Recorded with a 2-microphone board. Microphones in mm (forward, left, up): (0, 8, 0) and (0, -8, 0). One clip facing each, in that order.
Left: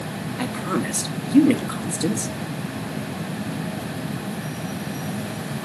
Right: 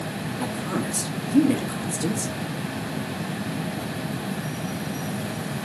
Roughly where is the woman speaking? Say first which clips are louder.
Left 4 dB; left.